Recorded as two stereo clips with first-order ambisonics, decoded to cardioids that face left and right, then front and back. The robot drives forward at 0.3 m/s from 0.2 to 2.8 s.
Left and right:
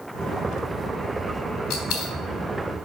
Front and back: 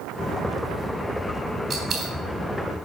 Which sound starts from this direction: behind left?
A dropped coin, at 1.7 s.